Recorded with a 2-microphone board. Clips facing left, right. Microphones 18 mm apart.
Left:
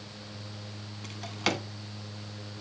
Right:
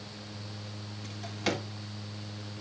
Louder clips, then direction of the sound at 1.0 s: Left 2 dB; 35° left (ahead or behind).